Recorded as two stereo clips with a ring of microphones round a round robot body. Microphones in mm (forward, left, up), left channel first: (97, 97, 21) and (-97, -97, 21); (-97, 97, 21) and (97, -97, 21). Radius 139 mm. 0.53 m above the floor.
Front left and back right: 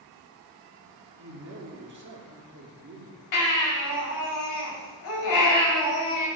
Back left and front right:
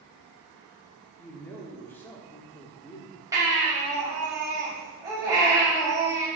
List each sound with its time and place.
1.2 s a man speaking: 145° right, 1.2 m
3.3 s a baby crying: 35° left, 2.5 m